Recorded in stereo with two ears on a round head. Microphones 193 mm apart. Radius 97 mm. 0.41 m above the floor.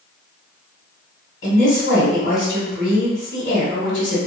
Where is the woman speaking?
60° left (ahead or behind), 2.0 m.